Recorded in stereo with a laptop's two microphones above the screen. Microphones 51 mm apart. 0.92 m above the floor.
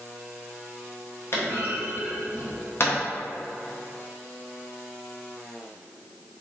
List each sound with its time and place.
1.3 s a clunk: 55° left (ahead or behind), 0.6 m